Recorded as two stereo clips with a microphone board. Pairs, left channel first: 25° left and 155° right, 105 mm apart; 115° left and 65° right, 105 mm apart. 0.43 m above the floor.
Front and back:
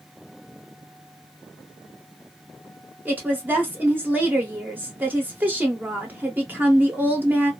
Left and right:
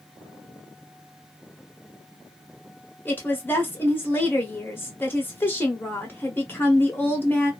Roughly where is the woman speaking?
Behind left.